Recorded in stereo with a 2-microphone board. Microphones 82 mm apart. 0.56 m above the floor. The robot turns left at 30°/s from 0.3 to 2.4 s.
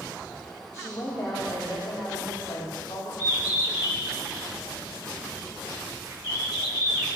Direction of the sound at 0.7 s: 155° left.